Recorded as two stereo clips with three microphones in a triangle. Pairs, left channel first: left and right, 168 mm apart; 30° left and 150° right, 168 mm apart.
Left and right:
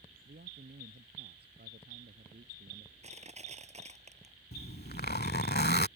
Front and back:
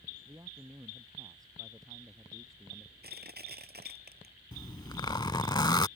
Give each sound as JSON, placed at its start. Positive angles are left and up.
{"t": 0.2, "sound": "a man speaking", "azimuth_deg": -80}
{"t": 3.0, "sound": "crushing", "azimuth_deg": -140}
{"t": 4.5, "sound": "a zipper", "azimuth_deg": 90}